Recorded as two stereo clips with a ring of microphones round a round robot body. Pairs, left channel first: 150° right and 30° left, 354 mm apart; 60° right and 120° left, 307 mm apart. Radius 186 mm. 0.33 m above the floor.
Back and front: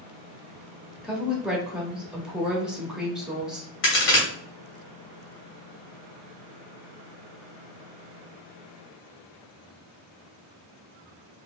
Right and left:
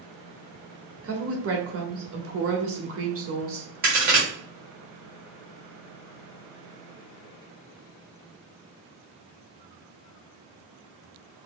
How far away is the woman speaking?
About 1.1 m.